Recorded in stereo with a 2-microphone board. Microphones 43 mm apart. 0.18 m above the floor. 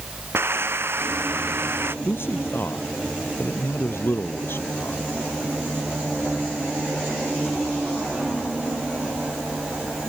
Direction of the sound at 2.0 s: 60° left (ahead or behind).